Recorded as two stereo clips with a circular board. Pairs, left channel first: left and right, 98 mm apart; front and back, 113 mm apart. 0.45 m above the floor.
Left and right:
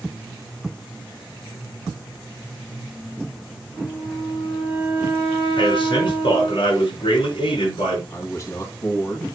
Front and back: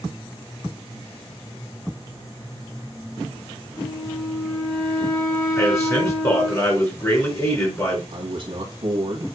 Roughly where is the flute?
Left.